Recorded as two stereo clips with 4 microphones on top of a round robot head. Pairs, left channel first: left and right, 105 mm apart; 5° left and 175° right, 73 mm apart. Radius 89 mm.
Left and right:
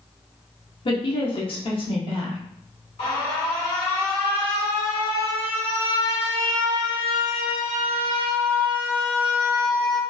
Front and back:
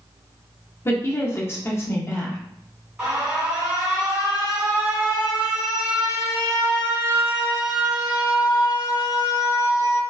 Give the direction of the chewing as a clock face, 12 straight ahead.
No chewing in this recording.